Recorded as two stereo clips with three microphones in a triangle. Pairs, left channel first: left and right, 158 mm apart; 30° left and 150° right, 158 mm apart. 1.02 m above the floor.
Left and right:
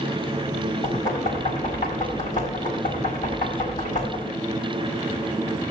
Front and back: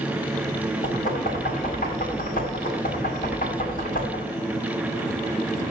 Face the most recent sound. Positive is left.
turn(degrees=55)